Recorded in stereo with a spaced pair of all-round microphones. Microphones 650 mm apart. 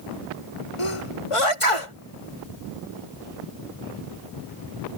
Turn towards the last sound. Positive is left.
turn(degrees=55)  # may be behind; listen again after turning